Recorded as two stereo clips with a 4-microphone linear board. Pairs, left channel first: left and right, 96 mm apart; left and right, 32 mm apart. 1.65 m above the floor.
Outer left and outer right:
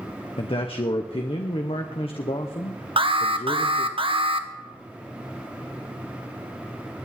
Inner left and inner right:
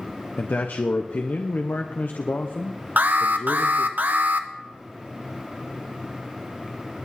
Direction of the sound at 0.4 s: 75° left (ahead or behind).